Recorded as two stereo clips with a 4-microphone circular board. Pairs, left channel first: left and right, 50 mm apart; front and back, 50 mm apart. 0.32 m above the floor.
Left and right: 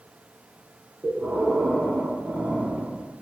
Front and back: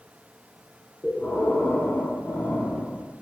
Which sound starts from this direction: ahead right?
Breathing, at 1.0 s.